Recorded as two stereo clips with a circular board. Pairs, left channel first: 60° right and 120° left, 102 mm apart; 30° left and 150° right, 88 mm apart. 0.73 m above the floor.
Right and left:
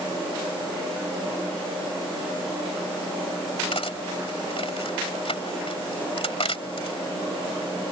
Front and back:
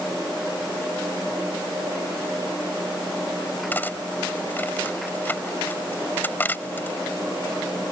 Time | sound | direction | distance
3.7 | cutlery clinking | 40° right | ?